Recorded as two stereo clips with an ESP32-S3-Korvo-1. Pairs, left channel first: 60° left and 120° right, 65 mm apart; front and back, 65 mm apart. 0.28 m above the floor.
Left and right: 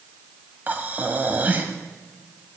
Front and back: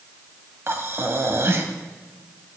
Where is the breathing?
170° right, 1.2 m.